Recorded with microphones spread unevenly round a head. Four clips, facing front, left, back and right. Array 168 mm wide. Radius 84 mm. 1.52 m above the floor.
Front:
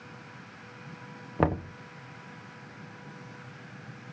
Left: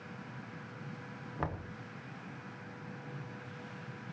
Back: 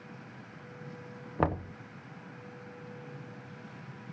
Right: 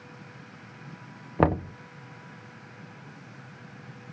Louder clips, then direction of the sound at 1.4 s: Right 16 dB, front 3 dB; 75° right.